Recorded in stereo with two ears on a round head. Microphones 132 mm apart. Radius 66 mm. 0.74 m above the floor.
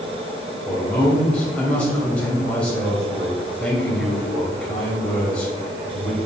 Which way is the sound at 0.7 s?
5° left (ahead or behind).